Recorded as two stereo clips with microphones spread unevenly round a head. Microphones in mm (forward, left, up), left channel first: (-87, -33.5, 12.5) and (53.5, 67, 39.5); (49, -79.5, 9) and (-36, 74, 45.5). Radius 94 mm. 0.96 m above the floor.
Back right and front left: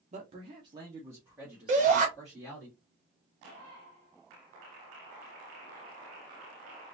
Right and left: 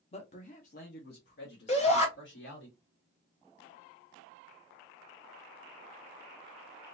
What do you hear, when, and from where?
0.1 s a man speaking: 15° right, 0.7 m; by 2.7 s 55° right, 1.9 m
1.7 s a shout: 15° right, 2 m